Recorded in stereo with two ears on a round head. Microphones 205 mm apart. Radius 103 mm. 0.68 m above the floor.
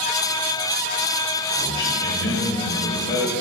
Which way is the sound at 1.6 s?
20° left (ahead or behind).